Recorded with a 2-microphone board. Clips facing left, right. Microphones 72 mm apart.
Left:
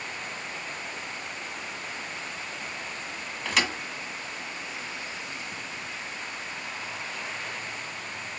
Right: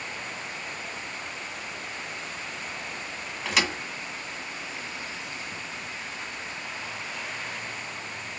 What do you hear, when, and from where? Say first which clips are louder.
3.5 s a thud: even; centre (ahead or behind), 1.4 m